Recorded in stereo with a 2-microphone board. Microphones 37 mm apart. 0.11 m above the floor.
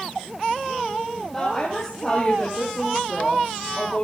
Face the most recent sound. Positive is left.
turn(degrees=15)  # may be behind; listen again after turning